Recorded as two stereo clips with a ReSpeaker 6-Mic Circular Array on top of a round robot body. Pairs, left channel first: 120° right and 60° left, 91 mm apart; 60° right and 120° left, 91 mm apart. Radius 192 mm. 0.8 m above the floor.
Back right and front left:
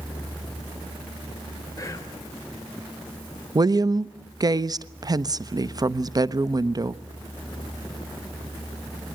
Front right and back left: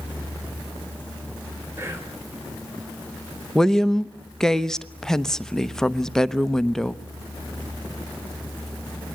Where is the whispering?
175° right, 4 m.